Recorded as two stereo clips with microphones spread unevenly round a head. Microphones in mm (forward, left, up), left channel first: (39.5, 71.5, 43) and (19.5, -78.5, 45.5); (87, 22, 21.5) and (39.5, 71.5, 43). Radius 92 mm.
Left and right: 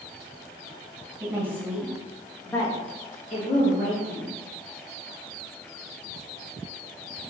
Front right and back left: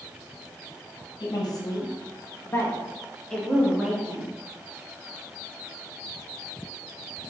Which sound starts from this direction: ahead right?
A woman speaking, at 1.2 s.